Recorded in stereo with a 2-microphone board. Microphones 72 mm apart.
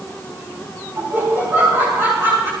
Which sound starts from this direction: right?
Laughter, at 1.0 s.